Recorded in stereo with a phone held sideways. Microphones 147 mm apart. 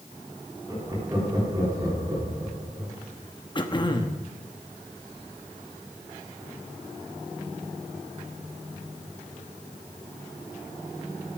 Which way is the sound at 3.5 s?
30° left (ahead or behind).